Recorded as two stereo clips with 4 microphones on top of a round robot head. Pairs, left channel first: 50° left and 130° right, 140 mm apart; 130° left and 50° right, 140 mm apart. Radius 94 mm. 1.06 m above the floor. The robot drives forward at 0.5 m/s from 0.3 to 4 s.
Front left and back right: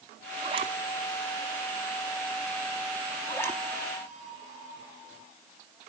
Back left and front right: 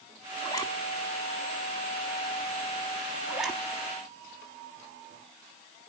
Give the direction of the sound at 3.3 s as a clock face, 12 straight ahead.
11 o'clock.